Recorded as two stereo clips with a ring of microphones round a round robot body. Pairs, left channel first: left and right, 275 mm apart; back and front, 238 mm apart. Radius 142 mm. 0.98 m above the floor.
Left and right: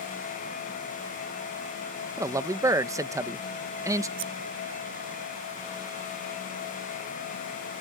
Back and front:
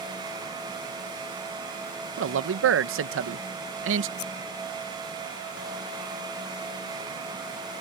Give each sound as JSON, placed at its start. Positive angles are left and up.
{"t": 2.2, "sound": "a man speaking", "azimuth_deg": -15}
{"t": 4.2, "sound": "scissors", "azimuth_deg": -135}